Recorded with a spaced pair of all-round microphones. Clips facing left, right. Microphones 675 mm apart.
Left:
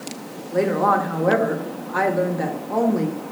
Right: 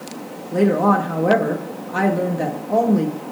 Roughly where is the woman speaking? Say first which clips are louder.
Right 4 dB; right.